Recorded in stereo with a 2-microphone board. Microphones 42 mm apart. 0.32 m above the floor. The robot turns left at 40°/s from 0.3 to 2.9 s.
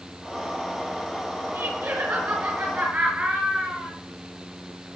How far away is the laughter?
About 6 m.